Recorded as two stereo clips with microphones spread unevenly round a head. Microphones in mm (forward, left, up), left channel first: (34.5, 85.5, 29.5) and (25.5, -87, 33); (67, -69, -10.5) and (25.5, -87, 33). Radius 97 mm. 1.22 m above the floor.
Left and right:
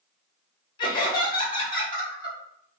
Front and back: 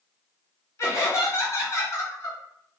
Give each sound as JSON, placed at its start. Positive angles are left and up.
{"t": 0.8, "sound": "laughter", "azimuth_deg": 25, "distance_m": 0.8}